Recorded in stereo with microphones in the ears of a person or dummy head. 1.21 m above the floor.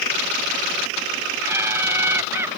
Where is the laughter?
10° right (ahead or behind).